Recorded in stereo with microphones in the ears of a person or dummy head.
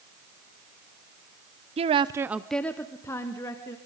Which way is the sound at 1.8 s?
25° right (ahead or behind).